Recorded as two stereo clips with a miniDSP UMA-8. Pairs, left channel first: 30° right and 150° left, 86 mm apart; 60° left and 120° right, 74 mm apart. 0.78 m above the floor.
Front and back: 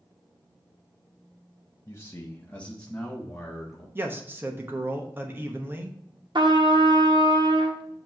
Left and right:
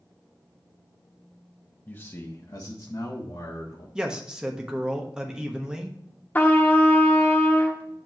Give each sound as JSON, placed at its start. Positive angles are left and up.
{"t": 1.9, "sound": "a man speaking", "azimuth_deg": 5, "distance_m": 0.7}
{"t": 4.0, "sound": "a man speaking", "azimuth_deg": 170, "distance_m": 1.0}
{"t": 6.3, "sound": "a trumpet", "azimuth_deg": 125, "distance_m": 1.1}